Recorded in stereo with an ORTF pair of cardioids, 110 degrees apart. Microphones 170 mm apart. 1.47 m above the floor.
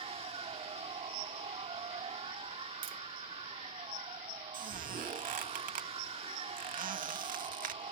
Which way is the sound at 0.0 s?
35° right.